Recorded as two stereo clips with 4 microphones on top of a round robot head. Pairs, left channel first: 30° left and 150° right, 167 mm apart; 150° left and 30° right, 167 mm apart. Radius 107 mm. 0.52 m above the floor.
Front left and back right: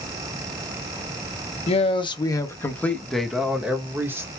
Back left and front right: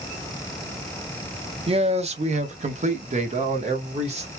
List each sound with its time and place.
1.7 s a man speaking: straight ahead, 1.1 m; by 4.3 s 75° right, 1.5 m